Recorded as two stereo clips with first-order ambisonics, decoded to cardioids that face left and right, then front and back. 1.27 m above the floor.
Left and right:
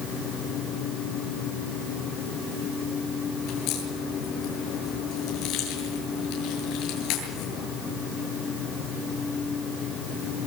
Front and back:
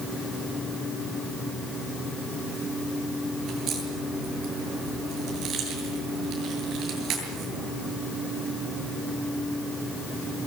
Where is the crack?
125° left, 8 m.